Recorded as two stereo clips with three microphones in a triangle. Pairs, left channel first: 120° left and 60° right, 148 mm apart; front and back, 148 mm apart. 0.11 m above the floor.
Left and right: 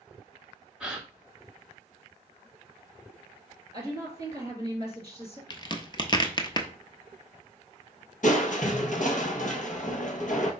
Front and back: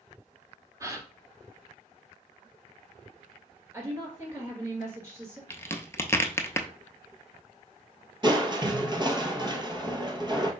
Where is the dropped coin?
I don't hear a dropped coin.